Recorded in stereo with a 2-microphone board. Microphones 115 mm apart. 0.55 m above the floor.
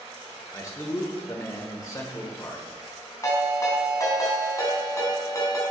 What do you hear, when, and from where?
0.5 s a man speaking: 30° left (ahead or behind), 1.5 m
3.2 s a ringtone: 30° left (ahead or behind), 2 m